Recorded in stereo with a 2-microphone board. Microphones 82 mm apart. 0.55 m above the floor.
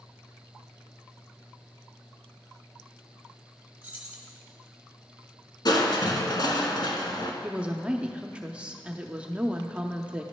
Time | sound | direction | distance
3.8 | keys jangling | 15° right (ahead or behind) | 1.9 m
5.7 | crushing | 55° left (ahead or behind) | 1.0 m
7.4 | a woman speaking | 15° right (ahead or behind) | 0.6 m